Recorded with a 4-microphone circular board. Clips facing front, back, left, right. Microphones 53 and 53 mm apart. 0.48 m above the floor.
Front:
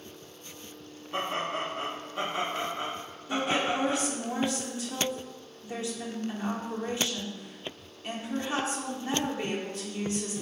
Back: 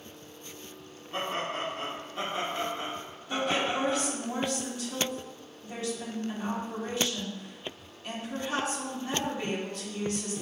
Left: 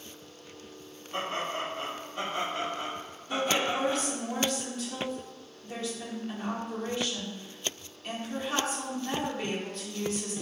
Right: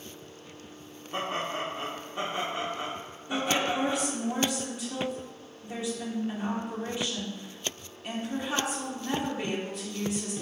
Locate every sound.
1.1 s laughter: 60° right, 0.7 m
3.3 s a woman speaking: 25° right, 0.9 m